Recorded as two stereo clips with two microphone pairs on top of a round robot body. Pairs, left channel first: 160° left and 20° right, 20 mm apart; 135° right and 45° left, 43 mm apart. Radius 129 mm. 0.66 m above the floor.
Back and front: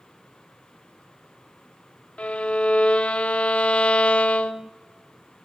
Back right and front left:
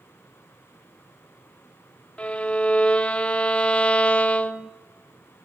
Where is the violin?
160° left, 0.7 m.